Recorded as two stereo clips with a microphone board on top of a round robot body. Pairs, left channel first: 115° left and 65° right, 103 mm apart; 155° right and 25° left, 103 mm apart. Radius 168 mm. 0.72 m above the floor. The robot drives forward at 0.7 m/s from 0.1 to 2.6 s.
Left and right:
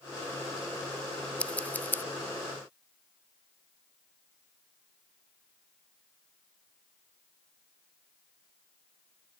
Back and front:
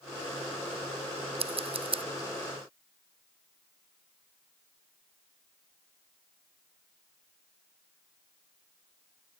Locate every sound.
1.4 s scissors: 35° left; by 2.0 s 45° left